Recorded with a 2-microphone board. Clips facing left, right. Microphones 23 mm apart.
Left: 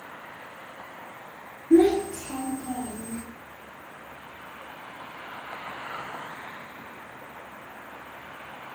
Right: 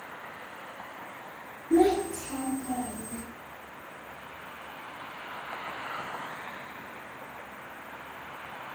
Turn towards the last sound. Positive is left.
turn(degrees=40)  # may be behind; listen again after turning